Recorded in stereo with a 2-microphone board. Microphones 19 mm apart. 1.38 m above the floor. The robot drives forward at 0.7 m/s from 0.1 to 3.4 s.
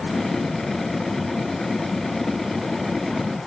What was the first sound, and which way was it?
Only background noise.